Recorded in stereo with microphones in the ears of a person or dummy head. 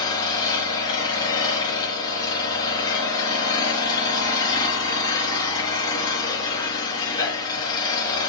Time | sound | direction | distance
0.0 | an engine running | 25° left (ahead or behind) | 4 m